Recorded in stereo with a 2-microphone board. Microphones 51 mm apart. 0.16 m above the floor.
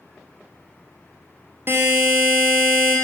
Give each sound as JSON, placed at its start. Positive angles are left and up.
{"t": 1.7, "sound": "a buzzer", "side_deg": -50, "distance_m": 0.7}